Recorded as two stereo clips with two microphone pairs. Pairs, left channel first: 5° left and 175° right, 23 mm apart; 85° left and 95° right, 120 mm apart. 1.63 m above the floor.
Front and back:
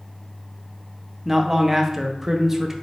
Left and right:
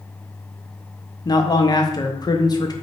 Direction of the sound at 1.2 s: 110° left.